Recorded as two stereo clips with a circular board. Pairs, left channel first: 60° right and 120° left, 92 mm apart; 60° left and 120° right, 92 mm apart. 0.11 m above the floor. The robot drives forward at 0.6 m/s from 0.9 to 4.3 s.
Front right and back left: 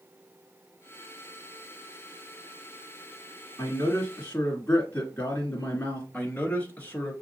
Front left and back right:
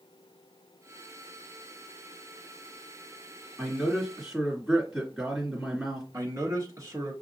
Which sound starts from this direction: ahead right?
A man speaking, at 3.6 s.